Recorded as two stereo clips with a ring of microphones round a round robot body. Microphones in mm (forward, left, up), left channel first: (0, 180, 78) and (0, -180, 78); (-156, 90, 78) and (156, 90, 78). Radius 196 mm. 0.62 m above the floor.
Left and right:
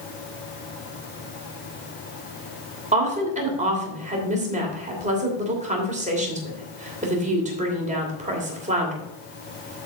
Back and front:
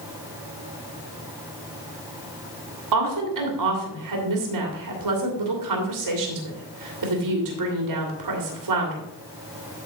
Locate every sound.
2.9 s a woman speaking: 20° right, 2.5 m